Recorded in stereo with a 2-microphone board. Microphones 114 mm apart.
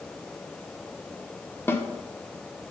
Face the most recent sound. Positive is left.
turn(degrees=20)  # may be behind; listen again after turning